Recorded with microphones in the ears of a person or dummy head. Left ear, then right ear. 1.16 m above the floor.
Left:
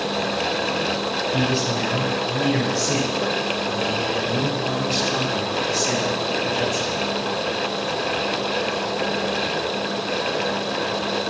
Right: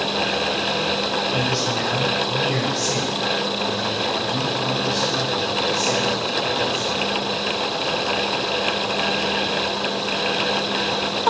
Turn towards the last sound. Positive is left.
turn(degrees=30)  # may be behind; listen again after turning